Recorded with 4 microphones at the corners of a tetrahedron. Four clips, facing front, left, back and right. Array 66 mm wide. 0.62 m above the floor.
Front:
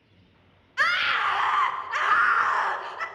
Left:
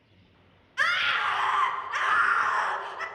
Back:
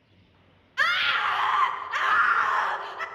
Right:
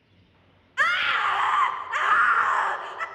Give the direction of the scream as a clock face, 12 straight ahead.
2 o'clock.